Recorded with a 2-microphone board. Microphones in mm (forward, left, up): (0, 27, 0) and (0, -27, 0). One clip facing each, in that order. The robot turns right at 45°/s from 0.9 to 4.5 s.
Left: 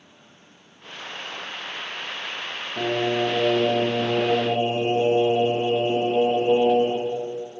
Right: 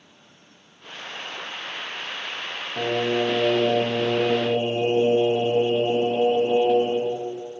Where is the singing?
20° right, 1.2 m; by 7.1 s 60° left, 1.2 m.